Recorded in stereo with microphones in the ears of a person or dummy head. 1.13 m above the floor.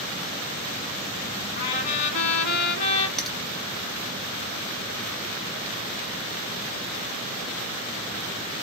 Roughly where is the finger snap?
Centre.